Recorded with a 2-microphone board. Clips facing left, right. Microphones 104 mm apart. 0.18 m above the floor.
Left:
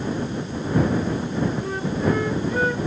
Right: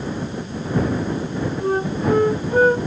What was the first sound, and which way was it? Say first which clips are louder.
A flute: right 3 dB; 40° right (ahead or behind).